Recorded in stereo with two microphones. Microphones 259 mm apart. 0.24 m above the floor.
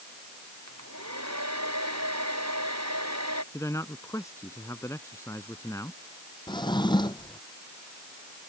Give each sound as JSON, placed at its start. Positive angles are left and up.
{"t": 0.7, "sound": "a hair dryer", "side_deg": -85}
{"t": 3.5, "sound": "a man speaking", "side_deg": 10}
{"t": 6.5, "sound": "a drawer", "side_deg": 15}